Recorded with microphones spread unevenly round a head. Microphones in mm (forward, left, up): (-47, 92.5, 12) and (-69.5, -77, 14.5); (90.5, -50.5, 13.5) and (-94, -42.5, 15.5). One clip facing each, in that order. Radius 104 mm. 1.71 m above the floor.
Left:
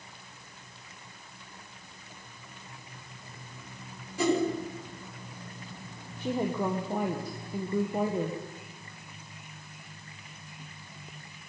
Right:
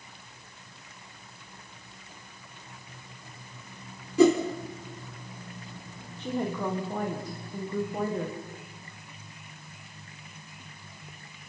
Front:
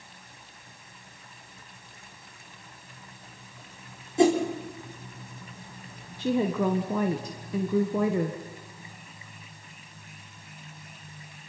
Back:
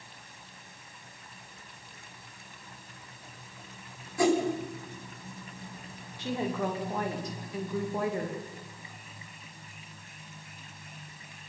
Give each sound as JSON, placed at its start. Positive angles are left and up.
{"t": 4.2, "sound": "a whoosh", "azimuth_deg": -70, "distance_m": 4.5}
{"t": 6.2, "sound": "a woman speaking", "azimuth_deg": 0, "distance_m": 1.6}